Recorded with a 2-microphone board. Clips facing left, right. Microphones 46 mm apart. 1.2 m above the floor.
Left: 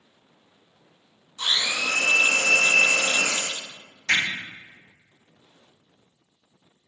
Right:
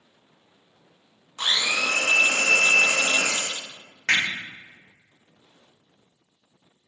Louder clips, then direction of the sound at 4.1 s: Right 1 dB; 85° right.